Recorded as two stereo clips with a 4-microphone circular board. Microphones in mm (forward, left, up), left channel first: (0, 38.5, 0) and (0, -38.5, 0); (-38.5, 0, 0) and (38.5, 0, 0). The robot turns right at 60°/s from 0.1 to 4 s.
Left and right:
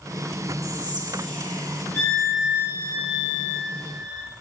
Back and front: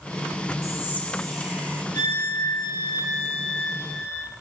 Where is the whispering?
130° right, 1.5 m; by 1.8 s 60° right, 1.5 m.